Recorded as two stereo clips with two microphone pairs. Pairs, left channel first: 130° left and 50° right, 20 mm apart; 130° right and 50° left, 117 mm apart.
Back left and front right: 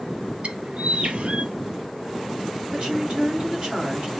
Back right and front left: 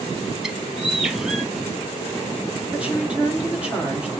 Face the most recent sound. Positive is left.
turn(degrees=-30)